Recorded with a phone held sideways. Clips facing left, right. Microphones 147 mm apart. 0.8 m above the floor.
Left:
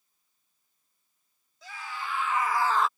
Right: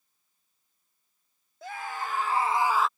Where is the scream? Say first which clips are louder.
Right 4 dB; 55° right (ahead or behind); by 2.9 s 5° left (ahead or behind).